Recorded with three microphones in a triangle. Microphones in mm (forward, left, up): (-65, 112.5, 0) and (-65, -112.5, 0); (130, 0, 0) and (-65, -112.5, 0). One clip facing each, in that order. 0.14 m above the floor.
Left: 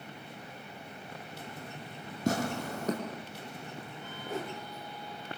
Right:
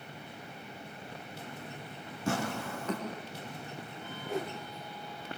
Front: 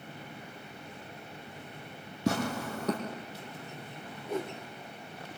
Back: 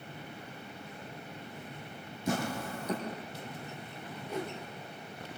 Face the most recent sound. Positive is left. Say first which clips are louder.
# right 2 dB, front 3 dB
turn(degrees=0)